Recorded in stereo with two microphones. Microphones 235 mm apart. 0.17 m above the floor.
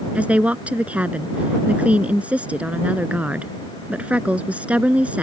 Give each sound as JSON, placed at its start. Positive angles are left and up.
{"t": 0.1, "sound": "a woman speaking", "side_deg": -5}